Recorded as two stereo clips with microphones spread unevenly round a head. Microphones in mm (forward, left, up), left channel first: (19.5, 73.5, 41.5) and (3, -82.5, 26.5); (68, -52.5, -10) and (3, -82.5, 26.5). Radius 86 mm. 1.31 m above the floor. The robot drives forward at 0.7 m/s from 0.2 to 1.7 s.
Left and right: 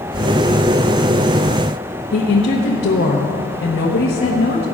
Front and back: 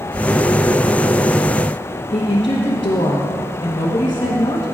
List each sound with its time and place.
2.1 s a woman speaking: 65° left, 1.0 m